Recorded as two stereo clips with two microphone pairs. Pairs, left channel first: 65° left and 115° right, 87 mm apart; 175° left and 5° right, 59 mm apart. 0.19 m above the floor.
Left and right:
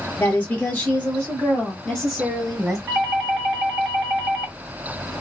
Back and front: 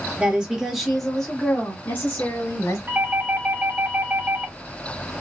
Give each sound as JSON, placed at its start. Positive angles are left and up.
{"t": 0.2, "sound": "a woman speaking", "azimuth_deg": 30, "distance_m": 1.7}
{"t": 2.9, "sound": "a doorbell", "azimuth_deg": -40, "distance_m": 2.0}